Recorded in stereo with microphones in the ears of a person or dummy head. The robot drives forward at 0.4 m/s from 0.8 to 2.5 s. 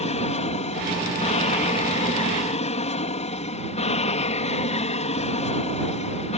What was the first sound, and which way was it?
An aircraft, 35° left (ahead or behind).